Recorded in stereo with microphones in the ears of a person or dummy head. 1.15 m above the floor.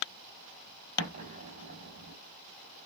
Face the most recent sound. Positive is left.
turn(degrees=-45)  # may be behind; listen again after turning